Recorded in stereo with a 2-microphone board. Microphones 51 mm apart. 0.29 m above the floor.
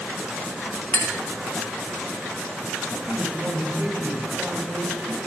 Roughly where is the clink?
Left.